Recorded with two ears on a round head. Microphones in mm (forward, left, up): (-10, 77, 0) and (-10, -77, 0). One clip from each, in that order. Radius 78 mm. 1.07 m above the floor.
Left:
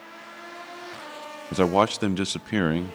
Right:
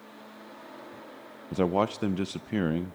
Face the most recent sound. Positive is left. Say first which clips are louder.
# left 6 dB
turn(degrees=40)  # may be behind; listen again after turning